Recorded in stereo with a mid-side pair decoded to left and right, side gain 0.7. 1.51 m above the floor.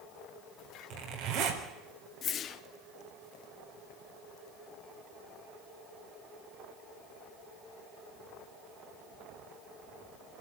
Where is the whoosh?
40° left, 1.1 m.